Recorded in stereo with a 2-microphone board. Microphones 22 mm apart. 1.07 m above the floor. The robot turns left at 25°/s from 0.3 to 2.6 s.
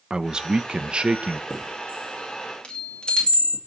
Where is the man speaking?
40° right (ahead or behind), 0.8 m; by 1.4 s 60° right (ahead or behind), 0.8 m.